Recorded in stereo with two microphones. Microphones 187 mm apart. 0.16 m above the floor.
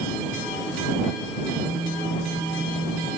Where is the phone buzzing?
10° left (ahead or behind).